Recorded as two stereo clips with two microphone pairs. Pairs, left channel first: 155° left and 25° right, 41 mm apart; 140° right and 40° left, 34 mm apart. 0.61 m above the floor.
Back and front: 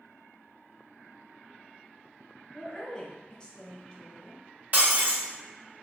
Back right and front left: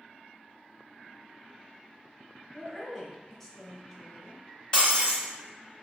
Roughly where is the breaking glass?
Right.